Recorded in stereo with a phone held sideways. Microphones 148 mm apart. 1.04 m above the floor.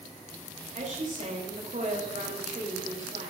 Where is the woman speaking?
60° right (ahead or behind), 3.5 m.